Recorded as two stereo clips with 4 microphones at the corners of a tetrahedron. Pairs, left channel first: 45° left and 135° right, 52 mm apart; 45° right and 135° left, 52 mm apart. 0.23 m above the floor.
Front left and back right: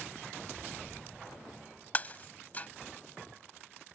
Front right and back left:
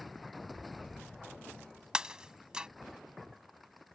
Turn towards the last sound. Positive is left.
turn(degrees=70)